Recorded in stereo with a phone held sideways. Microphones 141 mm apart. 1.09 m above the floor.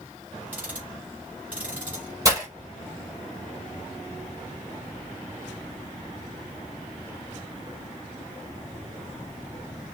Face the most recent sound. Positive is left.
turn(degrees=-25)  # may be behind; listen again after turning